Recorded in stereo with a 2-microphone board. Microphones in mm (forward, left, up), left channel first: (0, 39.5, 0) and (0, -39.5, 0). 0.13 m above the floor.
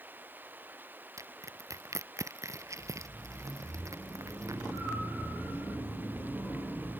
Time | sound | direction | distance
0.0 | running water | 25° right (ahead or behind) | ?
1.2 | crushing | 45° right (ahead or behind) | ?